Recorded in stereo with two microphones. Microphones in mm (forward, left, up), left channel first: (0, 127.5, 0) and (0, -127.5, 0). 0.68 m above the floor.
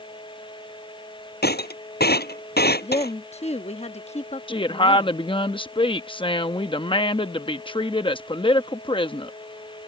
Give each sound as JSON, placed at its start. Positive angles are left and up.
{"t": 1.4, "sound": "breaking glass", "side_deg": 40}
{"t": 2.8, "sound": "a woman speaking", "side_deg": 25}
{"t": 4.5, "sound": "a woman speaking", "side_deg": 20}